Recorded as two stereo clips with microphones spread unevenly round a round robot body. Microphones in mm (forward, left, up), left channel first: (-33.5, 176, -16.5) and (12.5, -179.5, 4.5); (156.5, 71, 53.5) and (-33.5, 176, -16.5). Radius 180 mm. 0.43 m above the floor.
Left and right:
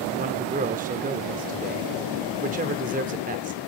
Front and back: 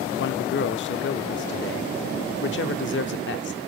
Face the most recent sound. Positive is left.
turn(degrees=-25)